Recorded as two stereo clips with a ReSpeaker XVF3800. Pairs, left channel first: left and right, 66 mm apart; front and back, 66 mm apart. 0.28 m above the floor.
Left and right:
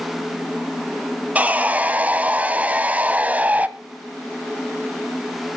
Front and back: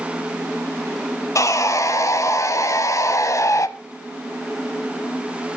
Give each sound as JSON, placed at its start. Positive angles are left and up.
{"t": 1.4, "sound": "sawing", "azimuth_deg": -25, "distance_m": 0.8}